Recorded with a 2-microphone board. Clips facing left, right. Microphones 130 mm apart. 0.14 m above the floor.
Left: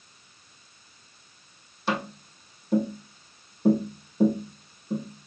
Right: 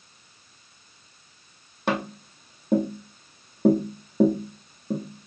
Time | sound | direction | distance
1.9 | tapping | 55° right (ahead or behind) | 2.5 m